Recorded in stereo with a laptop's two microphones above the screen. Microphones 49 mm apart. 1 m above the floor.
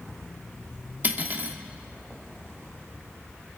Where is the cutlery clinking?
35° right (ahead or behind), 1.2 m.